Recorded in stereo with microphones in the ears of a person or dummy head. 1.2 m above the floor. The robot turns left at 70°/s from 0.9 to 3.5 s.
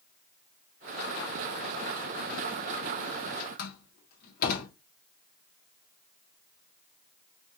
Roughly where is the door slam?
Left.